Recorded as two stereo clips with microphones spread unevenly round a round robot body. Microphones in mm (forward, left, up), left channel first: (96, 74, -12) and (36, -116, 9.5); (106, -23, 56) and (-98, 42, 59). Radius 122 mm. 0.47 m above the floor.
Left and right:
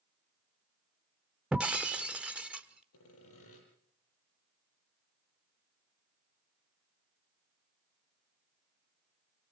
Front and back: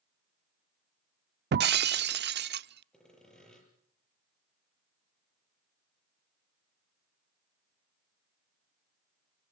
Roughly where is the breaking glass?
Behind.